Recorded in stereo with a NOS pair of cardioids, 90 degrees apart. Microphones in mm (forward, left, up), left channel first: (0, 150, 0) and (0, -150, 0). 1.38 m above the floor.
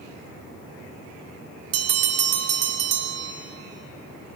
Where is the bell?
50° right, 0.7 m.